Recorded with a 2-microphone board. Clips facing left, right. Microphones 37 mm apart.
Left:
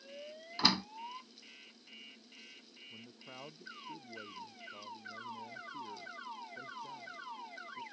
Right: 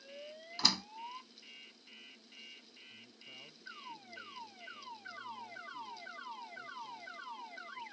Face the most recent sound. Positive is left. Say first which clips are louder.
# left 3 dB
turn(degrees=50)  # may be behind; listen again after turning